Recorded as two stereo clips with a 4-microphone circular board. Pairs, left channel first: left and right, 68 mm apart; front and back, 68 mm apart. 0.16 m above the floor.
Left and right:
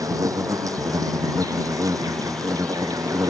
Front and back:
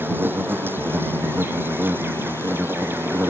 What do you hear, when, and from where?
0.0 s an insect: 120° right